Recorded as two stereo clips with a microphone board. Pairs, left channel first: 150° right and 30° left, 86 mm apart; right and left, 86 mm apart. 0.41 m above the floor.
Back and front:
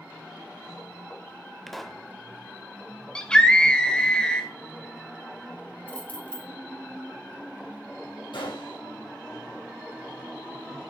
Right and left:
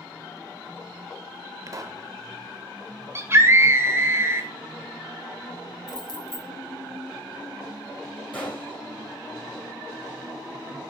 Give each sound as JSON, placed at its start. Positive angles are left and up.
{"t": 1.7, "sound": "a pop", "azimuth_deg": 125, "distance_m": 0.6}
{"t": 3.1, "sound": "a scream", "azimuth_deg": 135, "distance_m": 1.5}
{"t": 5.9, "sound": "keys jangling", "azimuth_deg": -85, "distance_m": 1.4}
{"t": 8.3, "sound": "a gunshot", "azimuth_deg": -160, "distance_m": 3.5}